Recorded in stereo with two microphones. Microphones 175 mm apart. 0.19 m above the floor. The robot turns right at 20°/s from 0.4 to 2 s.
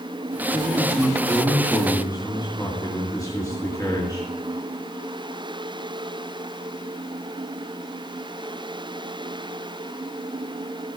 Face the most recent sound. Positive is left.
turn(degrees=20)  # may be behind; listen again after turning